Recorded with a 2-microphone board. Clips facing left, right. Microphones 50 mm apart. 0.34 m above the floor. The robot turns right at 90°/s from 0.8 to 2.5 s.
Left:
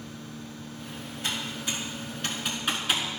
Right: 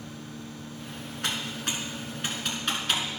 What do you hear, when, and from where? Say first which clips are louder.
1.2 s typing on a keyboard: right 1 dB; 70° right (ahead or behind), 1.7 m; by 3.0 s 5° left (ahead or behind), 1.7 m